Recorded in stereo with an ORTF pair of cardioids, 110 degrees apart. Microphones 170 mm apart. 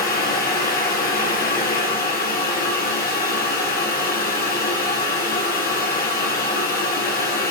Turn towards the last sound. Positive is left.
turn(degrees=65)